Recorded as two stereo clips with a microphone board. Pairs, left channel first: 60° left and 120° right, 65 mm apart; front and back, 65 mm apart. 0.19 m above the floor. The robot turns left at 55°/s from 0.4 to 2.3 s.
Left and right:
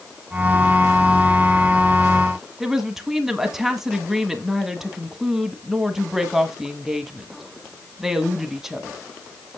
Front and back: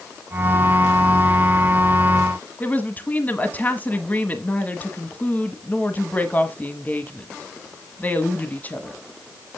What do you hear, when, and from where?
2.6 s a woman speaking: 40° right, 1.1 m